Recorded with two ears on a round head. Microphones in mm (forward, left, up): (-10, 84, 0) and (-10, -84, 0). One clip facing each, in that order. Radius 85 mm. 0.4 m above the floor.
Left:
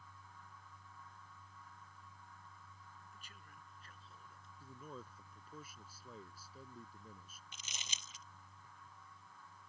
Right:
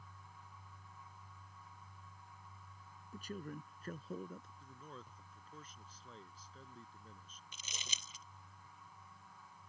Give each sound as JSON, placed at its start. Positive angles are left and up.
{"t": 3.1, "sound": "a man speaking", "side_deg": -35}
{"t": 4.6, "sound": "a man speaking", "side_deg": 10}
{"t": 7.5, "sound": "crumpling", "side_deg": -75}